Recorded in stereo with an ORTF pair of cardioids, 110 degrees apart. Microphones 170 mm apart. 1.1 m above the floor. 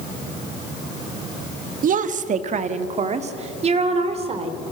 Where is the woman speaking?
55° right, 1.3 m; by 4.5 s 35° right, 3.5 m.